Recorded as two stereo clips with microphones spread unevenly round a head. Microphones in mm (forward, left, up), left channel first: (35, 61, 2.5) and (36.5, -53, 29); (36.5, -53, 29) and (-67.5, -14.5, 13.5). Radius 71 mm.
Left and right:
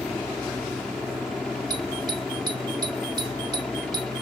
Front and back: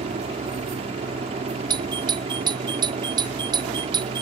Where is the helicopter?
175° left.